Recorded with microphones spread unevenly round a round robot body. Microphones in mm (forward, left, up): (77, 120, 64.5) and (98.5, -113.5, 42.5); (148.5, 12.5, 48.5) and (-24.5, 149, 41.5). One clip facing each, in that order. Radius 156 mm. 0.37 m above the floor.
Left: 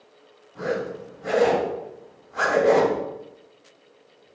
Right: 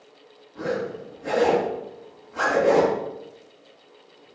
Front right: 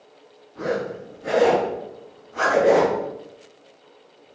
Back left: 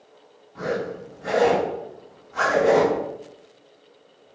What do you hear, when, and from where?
0.6 s a zipper: 175° left, 3.5 m